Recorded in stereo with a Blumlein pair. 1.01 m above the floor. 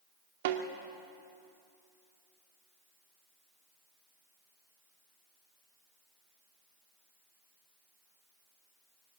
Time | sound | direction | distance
0.5 | a snare drum | 50° right | 2 m